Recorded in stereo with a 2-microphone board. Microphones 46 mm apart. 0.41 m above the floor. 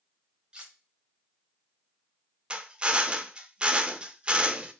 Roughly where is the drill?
Right.